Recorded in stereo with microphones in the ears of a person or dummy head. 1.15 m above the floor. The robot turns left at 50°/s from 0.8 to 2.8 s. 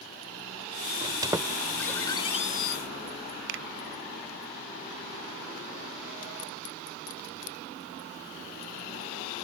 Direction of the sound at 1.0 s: 25° right (ahead or behind).